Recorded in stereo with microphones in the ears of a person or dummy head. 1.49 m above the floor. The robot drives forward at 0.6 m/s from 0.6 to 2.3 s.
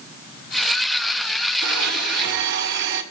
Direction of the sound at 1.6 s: 60° right (ahead or behind).